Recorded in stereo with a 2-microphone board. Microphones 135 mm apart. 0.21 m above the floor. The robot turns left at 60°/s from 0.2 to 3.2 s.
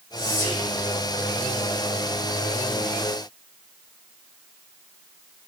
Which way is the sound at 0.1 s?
30° left (ahead or behind).